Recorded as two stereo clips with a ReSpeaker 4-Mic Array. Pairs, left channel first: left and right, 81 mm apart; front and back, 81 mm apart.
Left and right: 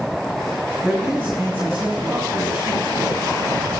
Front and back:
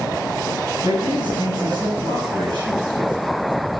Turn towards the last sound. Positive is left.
turn(degrees=-170)